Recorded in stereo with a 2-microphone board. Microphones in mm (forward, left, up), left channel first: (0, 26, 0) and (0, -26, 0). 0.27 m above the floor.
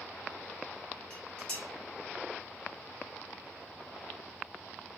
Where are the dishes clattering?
15° left (ahead or behind), 1.2 m.